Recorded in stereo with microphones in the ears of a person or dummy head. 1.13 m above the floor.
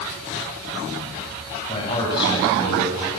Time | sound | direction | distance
1.7 | a man speaking | 30° left (ahead or behind) | 7 m